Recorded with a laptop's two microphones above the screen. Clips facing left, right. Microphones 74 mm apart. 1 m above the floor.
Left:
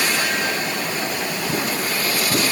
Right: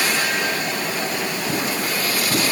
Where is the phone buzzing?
I don't hear a phone buzzing.